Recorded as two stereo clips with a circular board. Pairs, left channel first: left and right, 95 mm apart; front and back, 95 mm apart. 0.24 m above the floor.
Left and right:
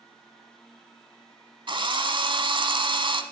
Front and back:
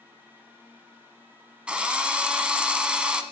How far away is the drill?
About 1.1 m.